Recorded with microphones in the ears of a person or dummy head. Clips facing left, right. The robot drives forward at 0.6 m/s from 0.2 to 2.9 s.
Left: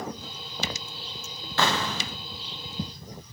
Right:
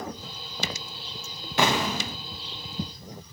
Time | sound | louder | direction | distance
1.6 | an explosion | right 2 dB | 15° right (ahead or behind) | 0.7 m